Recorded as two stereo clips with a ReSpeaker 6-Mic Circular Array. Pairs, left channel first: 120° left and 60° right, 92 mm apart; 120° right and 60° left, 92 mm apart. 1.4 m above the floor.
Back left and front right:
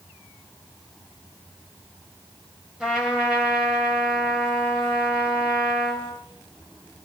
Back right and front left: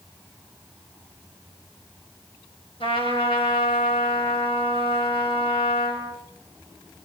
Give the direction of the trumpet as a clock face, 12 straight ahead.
5 o'clock.